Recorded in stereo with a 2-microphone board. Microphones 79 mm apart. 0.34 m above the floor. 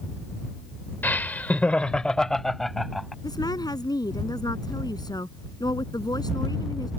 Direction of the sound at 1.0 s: 25° left (ahead or behind).